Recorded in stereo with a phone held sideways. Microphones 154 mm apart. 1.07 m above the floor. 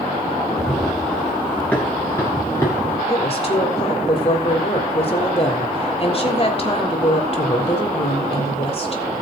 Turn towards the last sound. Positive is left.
turn(degrees=40)  # may be behind; listen again after turning